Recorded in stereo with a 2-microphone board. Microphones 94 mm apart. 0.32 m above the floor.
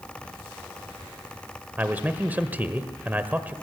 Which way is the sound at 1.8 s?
20° right (ahead or behind).